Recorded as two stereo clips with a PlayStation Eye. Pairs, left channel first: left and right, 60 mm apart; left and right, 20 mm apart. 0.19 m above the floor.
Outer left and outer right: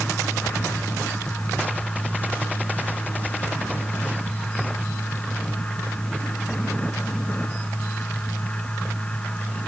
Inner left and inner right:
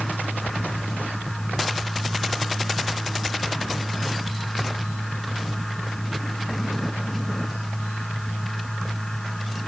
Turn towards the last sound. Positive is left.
No sound to turn to.